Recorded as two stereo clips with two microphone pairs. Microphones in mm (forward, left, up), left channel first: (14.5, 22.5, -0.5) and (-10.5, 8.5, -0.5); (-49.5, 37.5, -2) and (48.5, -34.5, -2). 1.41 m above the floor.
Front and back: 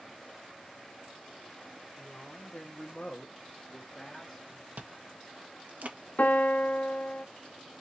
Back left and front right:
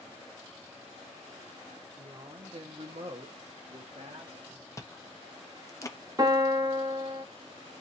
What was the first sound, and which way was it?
A woman speaking, straight ahead.